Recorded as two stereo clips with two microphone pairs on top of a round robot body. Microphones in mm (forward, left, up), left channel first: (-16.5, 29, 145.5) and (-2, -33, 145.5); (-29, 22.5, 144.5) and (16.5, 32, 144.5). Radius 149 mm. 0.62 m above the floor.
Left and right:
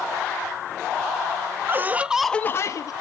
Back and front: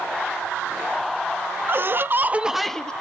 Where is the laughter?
25° right, 0.9 m; by 2.9 s 115° left, 0.8 m.